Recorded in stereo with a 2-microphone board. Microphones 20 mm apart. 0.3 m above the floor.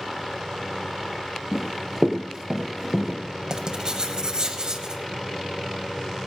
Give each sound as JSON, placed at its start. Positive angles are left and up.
{"t": 1.5, "sound": "running footsteps", "side_deg": -25, "distance_m": 2.5}
{"t": 3.5, "sound": "writing", "side_deg": -45, "distance_m": 1.3}